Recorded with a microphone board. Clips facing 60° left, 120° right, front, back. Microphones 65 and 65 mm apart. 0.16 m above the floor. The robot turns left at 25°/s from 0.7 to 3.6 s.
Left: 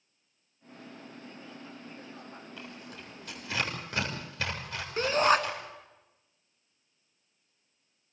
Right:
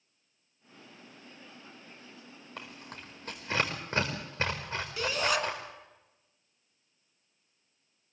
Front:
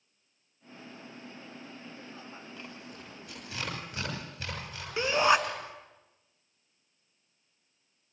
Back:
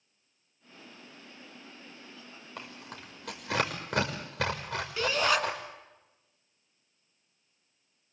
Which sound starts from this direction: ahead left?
A shout, at 5.0 s.